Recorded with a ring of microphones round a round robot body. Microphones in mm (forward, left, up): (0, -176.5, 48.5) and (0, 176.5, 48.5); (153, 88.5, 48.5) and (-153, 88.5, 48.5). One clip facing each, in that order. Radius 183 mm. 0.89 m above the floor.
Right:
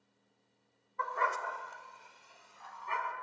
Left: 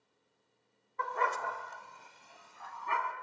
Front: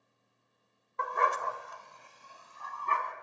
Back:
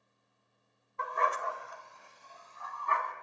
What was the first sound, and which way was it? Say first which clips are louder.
A dog barking: left 2 dB, front 2 dB; 35° left.